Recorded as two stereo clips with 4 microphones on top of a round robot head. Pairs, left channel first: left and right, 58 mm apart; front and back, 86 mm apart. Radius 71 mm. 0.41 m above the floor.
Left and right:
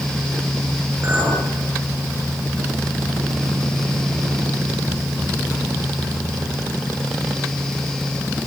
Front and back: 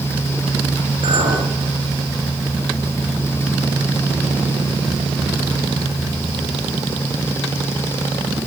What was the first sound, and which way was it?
A clink, 150° right.